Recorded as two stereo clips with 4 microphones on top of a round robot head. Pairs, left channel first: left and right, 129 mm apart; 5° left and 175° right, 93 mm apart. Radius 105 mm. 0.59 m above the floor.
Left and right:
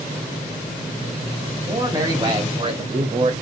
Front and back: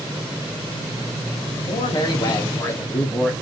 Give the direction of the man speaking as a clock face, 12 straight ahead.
1 o'clock.